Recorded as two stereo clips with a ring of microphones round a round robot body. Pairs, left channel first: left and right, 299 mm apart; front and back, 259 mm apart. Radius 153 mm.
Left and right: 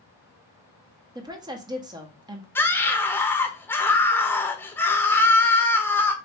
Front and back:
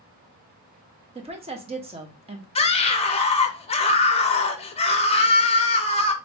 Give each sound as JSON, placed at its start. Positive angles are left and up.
{"t": 1.1, "sound": "a woman speaking", "azimuth_deg": -150, "distance_m": 0.7}
{"t": 2.5, "sound": "a scream", "azimuth_deg": 15, "distance_m": 0.7}